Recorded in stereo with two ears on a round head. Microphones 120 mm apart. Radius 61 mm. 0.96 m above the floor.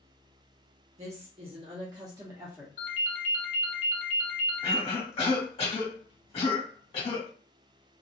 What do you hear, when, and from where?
1.0 s a woman speaking: 50° right (ahead or behind), 1.2 m; by 2.7 s 10° right (ahead or behind), 1.0 m
2.8 s a ringtone: 65° left (ahead or behind), 1.0 m
4.6 s a cough: 45° left (ahead or behind), 1.7 m